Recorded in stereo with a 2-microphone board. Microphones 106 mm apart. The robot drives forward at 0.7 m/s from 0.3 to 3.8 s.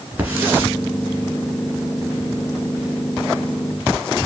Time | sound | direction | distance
0.2 | a hiss | 20° right (ahead or behind) | 1.6 m